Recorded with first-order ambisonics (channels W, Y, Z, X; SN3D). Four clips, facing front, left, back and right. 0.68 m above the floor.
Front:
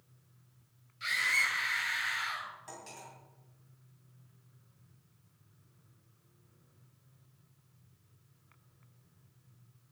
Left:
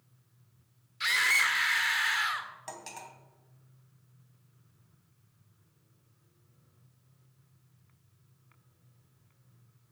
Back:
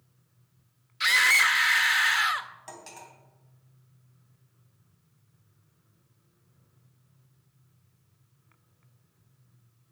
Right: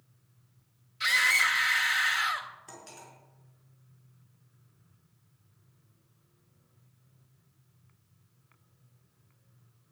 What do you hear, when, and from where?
1.0 s a scream: 175° left, 1.6 m
2.7 s cutlery clinking: 110° left, 2.5 m